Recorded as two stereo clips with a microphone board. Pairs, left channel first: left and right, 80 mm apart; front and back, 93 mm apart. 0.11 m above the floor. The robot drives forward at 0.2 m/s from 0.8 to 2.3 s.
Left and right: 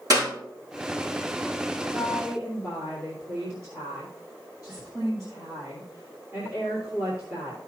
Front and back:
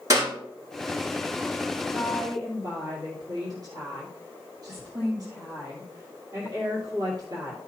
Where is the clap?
125° right, 6 m.